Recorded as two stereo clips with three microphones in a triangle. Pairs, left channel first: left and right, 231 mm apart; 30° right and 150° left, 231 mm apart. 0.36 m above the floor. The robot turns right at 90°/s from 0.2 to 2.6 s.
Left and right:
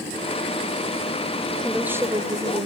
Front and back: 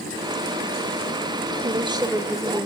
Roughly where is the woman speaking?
Behind.